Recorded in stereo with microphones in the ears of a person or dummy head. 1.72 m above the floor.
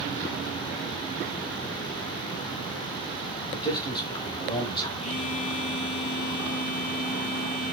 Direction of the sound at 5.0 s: 40° left (ahead or behind).